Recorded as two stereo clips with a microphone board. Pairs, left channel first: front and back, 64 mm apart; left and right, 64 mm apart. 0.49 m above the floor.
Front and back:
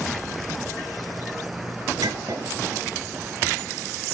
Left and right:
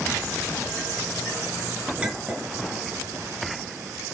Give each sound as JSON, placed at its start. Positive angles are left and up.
{"t": 2.0, "sound": "a clink", "azimuth_deg": -170, "distance_m": 5.0}